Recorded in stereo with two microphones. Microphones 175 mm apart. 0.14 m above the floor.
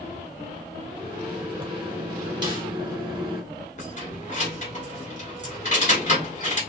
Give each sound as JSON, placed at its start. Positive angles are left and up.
{"t": 0.9, "sound": "a microwave", "side_deg": -25, "distance_m": 1.0}
{"t": 2.4, "sound": "a snare drum", "side_deg": -25, "distance_m": 1.5}
{"t": 3.8, "sound": "keys jangling", "side_deg": 45, "distance_m": 1.3}